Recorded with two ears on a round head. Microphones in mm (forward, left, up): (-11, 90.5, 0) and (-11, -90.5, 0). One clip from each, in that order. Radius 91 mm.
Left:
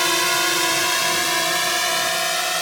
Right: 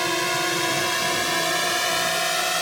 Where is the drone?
45° left (ahead or behind); by 2.6 s 15° left (ahead or behind).